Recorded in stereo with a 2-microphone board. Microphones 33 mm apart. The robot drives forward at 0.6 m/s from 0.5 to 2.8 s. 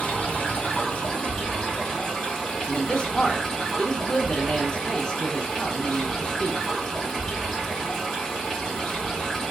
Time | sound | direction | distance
0.0 | running water | 35° left (ahead or behind) | 1.3 m
2.7 | a man speaking | 30° left (ahead or behind) | 0.5 m